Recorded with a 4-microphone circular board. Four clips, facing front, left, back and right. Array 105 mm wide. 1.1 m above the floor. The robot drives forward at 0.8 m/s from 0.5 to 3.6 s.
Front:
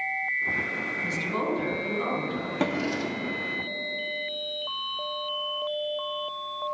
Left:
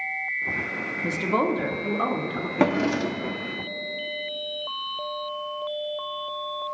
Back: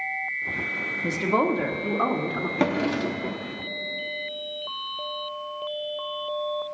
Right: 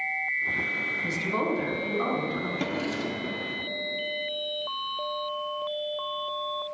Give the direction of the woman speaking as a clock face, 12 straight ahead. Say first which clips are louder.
Left 5 dB, back 7 dB; 7 o'clock.